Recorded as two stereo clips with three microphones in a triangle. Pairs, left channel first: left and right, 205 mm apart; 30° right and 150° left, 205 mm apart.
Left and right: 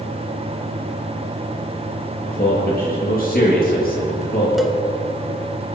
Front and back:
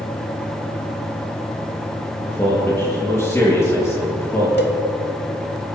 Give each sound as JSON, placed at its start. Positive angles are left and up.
{"t": 2.2, "sound": "a man speaking", "azimuth_deg": 45, "distance_m": 5.5}
{"t": 4.6, "sound": "a cowbell", "azimuth_deg": 0, "distance_m": 1.2}